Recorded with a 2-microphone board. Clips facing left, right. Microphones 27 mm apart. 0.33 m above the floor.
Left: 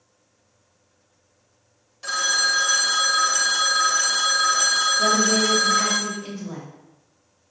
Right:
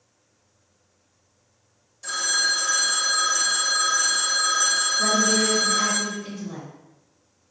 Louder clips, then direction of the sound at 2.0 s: Left 2 dB; 45° left (ahead or behind).